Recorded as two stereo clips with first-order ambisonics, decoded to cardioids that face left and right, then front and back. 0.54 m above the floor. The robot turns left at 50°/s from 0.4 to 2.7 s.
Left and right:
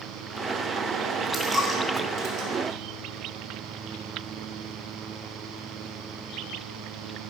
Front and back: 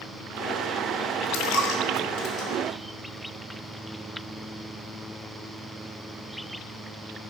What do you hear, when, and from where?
1.3 s a dropped coin: 5° left, 2 m; by 2.5 s 55° right, 2 m